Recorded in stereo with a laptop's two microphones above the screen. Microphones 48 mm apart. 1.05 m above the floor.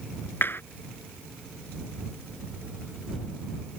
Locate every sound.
0.4 s a clap: 50° left (ahead or behind)